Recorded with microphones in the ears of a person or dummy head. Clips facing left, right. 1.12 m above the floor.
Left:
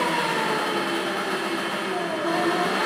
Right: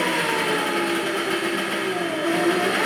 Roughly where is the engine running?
Right.